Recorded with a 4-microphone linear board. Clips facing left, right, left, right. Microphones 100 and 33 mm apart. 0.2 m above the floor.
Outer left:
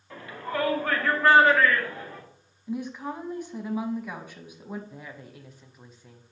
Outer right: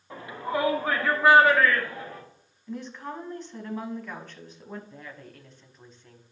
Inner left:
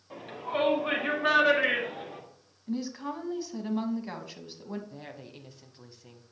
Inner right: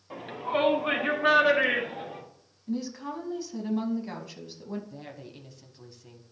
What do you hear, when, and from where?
0.1 s a shout: 20° right (ahead or behind), 1.6 m; by 2.2 s centre (ahead or behind), 3.5 m
2.7 s a woman speaking: 10° left (ahead or behind), 1.1 m
4.9 s a woman speaking: 10° left (ahead or behind), 1.0 m